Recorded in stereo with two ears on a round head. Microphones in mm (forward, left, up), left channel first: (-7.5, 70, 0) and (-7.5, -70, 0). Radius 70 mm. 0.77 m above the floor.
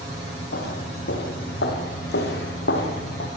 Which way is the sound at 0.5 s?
70° left (ahead or behind).